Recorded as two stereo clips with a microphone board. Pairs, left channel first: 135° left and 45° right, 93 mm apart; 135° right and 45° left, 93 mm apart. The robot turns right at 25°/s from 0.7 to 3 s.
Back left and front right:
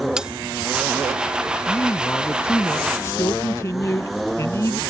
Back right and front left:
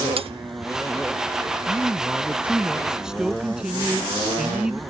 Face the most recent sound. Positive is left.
turn(degrees=120)